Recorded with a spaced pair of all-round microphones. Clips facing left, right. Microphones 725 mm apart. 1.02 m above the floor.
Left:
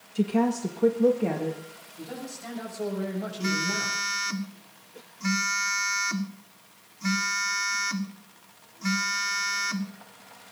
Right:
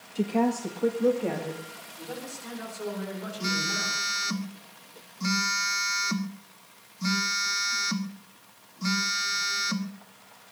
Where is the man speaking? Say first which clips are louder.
Left 1 dB; 85° left, 7 m.